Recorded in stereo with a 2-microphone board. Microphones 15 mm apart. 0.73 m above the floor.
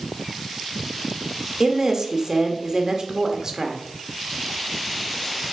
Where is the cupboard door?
No cupboard door in this recording.